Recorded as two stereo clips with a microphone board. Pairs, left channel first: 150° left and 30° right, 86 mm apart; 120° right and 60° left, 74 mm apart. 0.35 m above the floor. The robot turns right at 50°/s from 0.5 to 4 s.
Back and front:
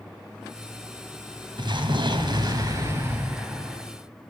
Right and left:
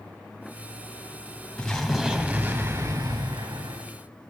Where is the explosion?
50° right, 1.8 m; by 3.9 s 65° left, 1.8 m.